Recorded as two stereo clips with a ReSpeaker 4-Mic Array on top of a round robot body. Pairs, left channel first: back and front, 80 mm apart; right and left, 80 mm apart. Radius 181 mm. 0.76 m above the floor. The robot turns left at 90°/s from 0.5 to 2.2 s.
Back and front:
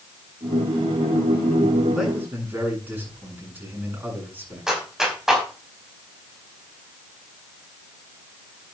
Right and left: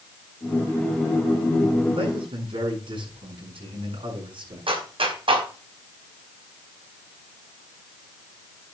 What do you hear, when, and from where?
1.9 s a man speaking: 90° left, 9 m; by 4.7 s 70° left, 9 m
4.7 s a clap: 85° left, 4.5 m